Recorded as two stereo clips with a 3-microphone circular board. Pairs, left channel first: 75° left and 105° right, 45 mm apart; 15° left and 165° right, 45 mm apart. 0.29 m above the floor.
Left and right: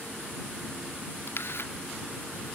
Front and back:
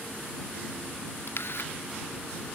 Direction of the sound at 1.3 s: 45° left.